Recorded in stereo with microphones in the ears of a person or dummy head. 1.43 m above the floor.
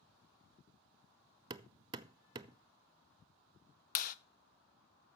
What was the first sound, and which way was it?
Hammering, 25° right (ahead or behind).